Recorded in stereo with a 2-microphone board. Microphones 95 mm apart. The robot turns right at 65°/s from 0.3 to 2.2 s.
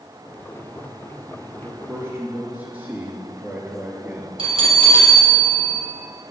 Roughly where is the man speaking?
Ahead right.